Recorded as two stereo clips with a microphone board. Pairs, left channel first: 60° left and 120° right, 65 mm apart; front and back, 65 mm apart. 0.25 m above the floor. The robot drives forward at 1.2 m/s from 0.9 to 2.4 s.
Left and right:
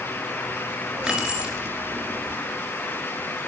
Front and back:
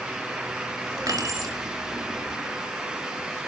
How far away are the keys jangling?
About 3 m.